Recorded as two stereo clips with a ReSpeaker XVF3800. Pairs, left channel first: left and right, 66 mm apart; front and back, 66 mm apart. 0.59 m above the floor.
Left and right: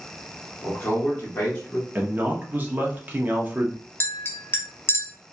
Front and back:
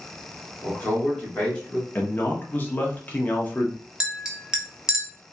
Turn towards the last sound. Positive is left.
turn(degrees=110)